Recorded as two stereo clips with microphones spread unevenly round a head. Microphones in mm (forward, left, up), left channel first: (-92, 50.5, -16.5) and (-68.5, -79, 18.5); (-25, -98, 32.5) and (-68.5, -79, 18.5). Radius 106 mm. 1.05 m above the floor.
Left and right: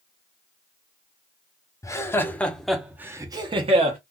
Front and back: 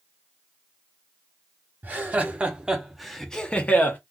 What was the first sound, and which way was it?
Laughter, 145° left.